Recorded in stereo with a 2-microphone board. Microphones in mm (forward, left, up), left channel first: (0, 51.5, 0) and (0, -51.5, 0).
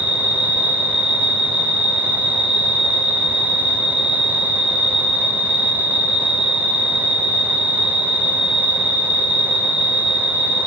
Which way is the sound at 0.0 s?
70° right (ahead or behind).